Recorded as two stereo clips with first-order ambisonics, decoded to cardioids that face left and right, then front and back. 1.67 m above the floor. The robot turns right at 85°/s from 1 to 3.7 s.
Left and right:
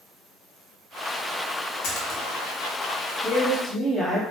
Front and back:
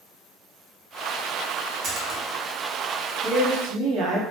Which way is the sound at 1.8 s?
120° left.